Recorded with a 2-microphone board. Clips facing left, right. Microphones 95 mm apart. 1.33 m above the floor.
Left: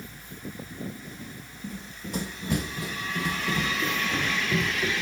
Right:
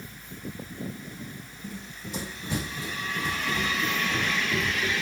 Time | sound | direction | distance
1.6 | running footsteps | 45° left (ahead or behind) | 3 m